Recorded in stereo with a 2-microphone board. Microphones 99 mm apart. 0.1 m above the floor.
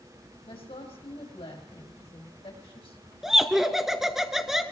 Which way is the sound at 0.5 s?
70° left (ahead or behind).